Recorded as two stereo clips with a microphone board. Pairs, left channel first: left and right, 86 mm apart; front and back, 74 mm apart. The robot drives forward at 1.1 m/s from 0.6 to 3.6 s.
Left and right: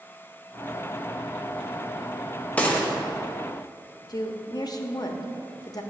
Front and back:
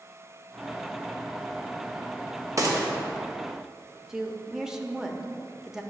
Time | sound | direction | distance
2.6 | a gunshot | 155° left | 0.8 m
4.1 | a woman speaking | 100° left | 0.6 m